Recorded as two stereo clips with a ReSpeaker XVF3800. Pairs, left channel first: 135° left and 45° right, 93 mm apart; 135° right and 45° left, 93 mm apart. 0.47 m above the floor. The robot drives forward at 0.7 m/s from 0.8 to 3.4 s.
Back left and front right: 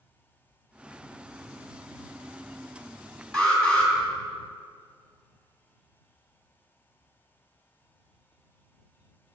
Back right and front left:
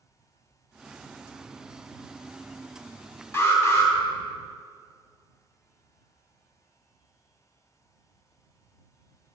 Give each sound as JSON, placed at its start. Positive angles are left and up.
{"t": 3.3, "sound": "an alarm", "azimuth_deg": -160, "distance_m": 1.4}